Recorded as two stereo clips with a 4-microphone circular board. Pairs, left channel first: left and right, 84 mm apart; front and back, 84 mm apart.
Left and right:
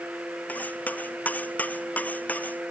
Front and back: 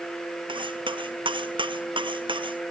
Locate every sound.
0.5 s cutlery clinking: 160° left